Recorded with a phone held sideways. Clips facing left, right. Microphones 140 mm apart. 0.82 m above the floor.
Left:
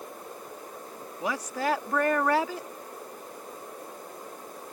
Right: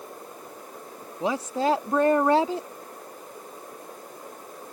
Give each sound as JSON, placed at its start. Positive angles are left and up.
{"t": 1.2, "sound": "a woman speaking", "side_deg": -25}